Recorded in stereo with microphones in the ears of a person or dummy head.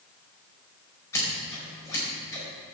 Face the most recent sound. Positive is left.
turn(degrees=15)  # may be behind; listen again after turning